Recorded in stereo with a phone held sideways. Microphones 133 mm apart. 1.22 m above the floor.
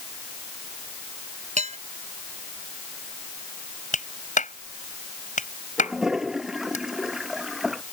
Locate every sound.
1.6 s dishes clattering: 60° right (ahead or behind)
3.9 s a clap: 70° left (ahead or behind)
5.8 s a toilet flushing: 5° right (ahead or behind)